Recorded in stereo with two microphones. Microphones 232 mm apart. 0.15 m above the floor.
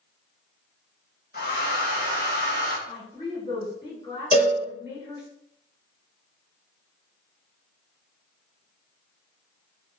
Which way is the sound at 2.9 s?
20° left (ahead or behind).